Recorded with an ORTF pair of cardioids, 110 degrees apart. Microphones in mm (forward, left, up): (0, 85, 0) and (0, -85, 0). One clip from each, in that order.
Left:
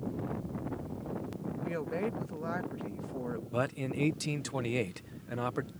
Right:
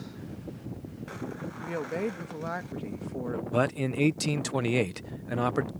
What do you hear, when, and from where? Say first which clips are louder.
1.6 s a woman speaking: right 3 dB; 20° right
3.5 s a man speaking: right 6 dB; 30° right